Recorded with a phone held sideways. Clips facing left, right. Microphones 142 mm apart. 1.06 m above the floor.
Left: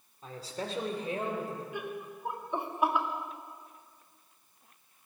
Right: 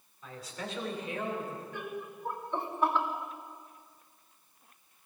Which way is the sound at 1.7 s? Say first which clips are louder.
Left 1 dB; 15° left (ahead or behind).